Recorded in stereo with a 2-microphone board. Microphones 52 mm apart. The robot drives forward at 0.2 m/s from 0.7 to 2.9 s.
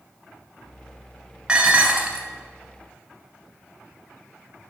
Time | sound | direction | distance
1.5 | dishes clattering | 15° right (ahead or behind) | 0.8 m